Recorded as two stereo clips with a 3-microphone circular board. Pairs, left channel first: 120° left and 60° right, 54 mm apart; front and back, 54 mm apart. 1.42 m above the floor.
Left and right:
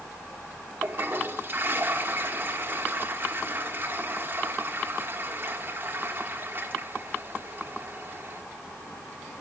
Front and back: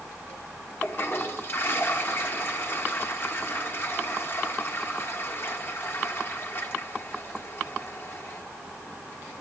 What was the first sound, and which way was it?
A toilet flushing, 20° right.